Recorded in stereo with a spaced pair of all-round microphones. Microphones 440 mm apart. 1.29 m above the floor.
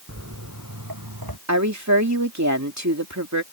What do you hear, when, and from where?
0.1 s footsteps: 35° right (ahead or behind); by 1.4 s 55° right (ahead or behind)
1.5 s a woman speaking: 35° right (ahead or behind)